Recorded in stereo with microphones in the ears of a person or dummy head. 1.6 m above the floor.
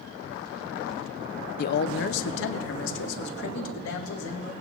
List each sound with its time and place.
1.6 s a man speaking: 50° left (ahead or behind), 0.6 m; by 4.5 s 75° left (ahead or behind), 2.5 m